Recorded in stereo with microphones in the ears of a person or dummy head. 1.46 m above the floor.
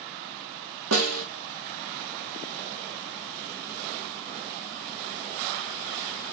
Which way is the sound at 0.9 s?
80° right.